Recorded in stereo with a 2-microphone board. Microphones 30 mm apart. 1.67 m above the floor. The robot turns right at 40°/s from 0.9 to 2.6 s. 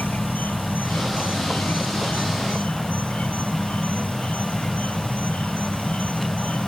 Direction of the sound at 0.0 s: 70° left.